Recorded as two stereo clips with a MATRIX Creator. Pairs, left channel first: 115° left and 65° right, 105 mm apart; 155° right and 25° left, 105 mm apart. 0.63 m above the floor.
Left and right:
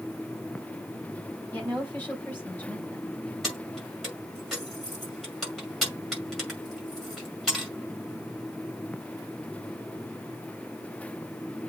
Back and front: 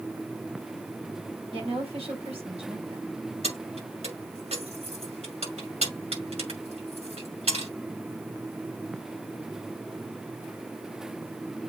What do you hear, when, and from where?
1.5 s a woman speaking: 40° left, 4 m
3.4 s keys jangling: 25° left, 6.5 m